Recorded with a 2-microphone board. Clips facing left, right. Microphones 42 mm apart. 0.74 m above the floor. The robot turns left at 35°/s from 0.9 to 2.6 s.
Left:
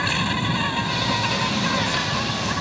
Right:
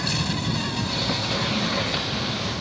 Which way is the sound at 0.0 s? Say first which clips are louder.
Left 4 dB; 140° left.